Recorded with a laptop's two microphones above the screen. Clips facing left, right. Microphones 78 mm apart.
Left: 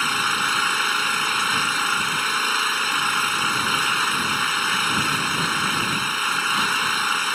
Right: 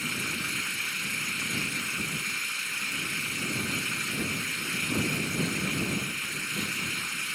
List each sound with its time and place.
0.0 s an engine running: 75° left (ahead or behind)